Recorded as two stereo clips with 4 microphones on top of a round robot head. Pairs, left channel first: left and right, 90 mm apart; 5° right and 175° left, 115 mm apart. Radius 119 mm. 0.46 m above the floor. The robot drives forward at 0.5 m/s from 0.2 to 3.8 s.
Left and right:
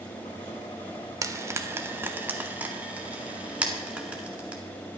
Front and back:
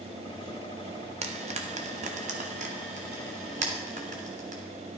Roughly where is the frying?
Behind right.